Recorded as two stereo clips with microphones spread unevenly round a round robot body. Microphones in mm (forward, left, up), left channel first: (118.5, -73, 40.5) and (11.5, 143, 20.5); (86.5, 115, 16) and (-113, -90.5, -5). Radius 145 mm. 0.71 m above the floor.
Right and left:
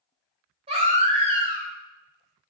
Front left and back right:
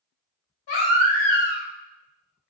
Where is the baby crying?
50° left, 1.2 m.